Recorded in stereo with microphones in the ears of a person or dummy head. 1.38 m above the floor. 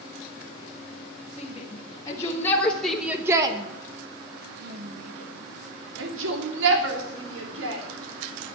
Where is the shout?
30° left (ahead or behind), 1.8 m; by 7.8 s 80° right, 3.5 m.